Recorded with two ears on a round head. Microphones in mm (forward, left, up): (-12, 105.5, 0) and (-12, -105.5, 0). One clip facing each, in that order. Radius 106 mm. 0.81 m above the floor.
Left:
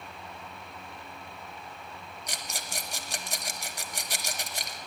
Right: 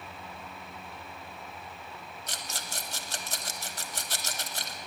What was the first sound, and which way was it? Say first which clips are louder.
A rattle: left 2 dB; 15° left (ahead or behind).